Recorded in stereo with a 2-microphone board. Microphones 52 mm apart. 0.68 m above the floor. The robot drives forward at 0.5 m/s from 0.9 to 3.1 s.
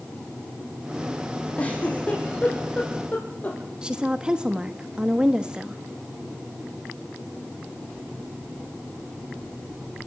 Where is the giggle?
25° left (ahead or behind), 5.5 m.